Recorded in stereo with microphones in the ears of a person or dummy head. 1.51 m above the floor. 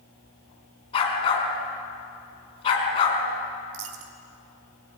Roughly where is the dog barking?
Left.